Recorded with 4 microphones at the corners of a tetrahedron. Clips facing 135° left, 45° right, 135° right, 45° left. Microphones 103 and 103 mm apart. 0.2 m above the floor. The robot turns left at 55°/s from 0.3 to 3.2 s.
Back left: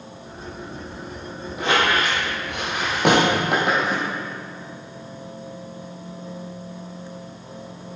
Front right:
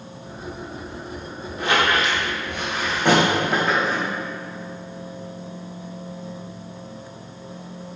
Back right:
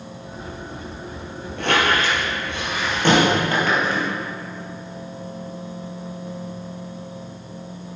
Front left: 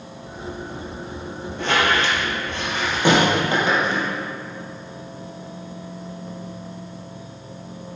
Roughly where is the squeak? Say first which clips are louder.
Even, even; behind right.